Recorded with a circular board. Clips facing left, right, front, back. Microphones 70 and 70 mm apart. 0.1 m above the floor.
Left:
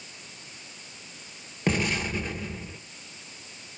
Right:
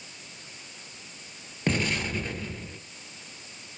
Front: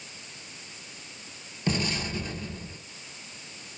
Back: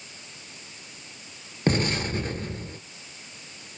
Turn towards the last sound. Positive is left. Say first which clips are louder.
# left 1 dB, back 5 dB
turn(degrees=175)